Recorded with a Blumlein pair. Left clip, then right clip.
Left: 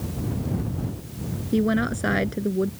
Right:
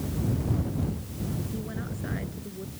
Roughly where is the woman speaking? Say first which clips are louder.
Left 14 dB; ahead left.